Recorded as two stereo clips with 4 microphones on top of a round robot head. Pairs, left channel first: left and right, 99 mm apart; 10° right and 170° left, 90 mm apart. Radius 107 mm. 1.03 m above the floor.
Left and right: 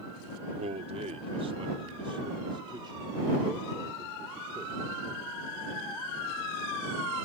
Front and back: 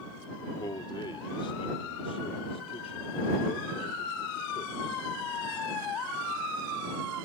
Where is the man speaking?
65° right; by 5.0 s 25° right.